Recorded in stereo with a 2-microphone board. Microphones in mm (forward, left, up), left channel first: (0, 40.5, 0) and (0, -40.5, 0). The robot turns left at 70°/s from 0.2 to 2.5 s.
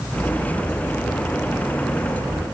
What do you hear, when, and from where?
Only background noise.